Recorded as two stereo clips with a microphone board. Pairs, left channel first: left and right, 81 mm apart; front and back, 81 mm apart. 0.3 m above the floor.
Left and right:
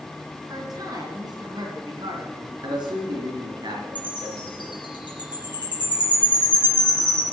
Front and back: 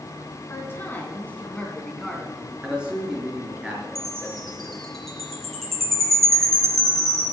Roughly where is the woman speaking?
Ahead right.